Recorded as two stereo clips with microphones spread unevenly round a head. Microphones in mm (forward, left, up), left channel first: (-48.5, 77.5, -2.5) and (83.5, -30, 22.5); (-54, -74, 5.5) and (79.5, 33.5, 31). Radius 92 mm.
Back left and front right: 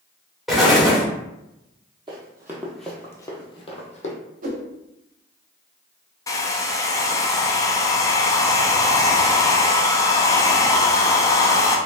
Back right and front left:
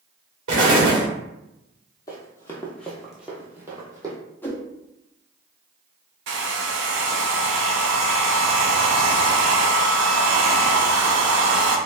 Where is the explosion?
50° left, 1.4 m.